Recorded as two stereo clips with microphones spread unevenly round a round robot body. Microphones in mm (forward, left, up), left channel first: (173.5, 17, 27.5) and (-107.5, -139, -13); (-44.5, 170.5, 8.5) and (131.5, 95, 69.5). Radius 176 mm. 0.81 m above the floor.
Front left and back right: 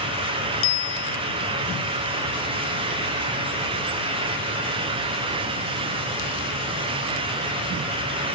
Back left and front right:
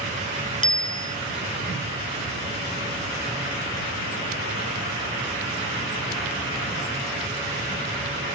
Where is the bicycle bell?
25° left.